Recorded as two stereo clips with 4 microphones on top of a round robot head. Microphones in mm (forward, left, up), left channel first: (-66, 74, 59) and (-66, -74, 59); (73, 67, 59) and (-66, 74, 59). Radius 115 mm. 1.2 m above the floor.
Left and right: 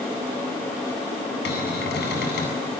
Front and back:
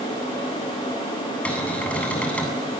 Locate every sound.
1.4 s a cupboard door: 80° left, 8.5 m